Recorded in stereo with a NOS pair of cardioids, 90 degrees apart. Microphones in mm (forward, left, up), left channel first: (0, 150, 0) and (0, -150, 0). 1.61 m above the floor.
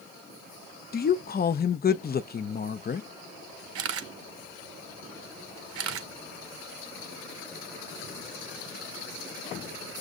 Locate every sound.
0.9 s a woman speaking: 35° left, 0.7 m
3.8 s a camera shutter: 55° right, 0.8 m